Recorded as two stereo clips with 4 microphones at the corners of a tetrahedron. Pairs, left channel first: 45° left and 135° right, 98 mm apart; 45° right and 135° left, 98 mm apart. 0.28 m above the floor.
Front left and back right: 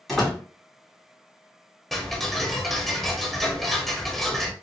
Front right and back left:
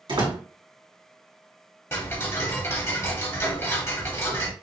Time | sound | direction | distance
0.1 | a door slam | 130° left | 1.9 m
1.9 | ticking | 40° right | 0.8 m